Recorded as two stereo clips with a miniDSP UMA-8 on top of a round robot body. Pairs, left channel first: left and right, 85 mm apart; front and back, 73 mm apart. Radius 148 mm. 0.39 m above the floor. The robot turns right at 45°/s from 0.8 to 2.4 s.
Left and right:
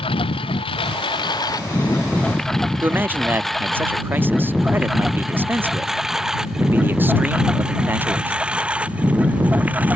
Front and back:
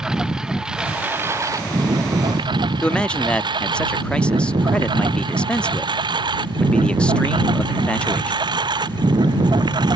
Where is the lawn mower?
100° left; by 10.0 s 165° right.